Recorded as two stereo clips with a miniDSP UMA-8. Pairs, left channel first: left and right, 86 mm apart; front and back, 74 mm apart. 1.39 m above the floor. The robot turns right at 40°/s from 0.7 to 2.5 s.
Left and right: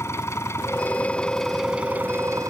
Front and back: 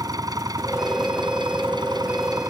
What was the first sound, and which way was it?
An engine running, 150° left.